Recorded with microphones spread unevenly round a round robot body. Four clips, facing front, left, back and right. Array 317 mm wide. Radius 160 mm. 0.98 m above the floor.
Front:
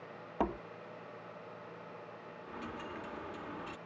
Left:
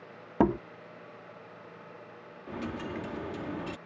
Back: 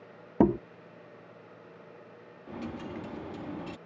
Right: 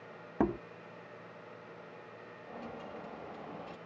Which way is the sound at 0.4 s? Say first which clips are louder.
Left 6 dB, back 11 dB; 160° left.